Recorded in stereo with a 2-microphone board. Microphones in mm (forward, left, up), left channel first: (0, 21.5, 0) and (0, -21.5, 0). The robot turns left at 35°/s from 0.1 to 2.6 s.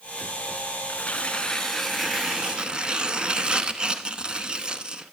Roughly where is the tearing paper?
Ahead left.